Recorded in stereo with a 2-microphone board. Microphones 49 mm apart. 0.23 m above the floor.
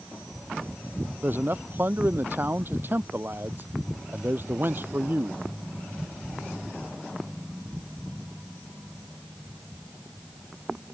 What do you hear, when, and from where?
1.2 s a man speaking: 45° right (ahead or behind)